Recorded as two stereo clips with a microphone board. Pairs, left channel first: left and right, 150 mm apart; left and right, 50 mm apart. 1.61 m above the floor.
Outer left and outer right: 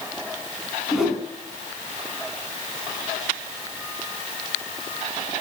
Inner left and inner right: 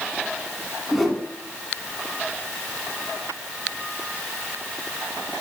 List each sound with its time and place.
0.9 s a whoosh: centre (ahead or behind), 2.5 m